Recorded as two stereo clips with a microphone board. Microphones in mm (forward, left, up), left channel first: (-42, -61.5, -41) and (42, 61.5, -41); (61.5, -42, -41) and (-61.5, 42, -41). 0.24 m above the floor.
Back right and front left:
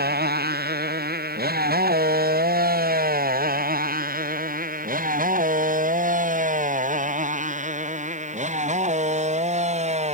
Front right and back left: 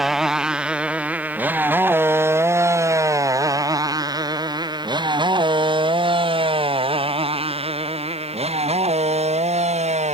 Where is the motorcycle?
60° left; by 10.1 s 100° left.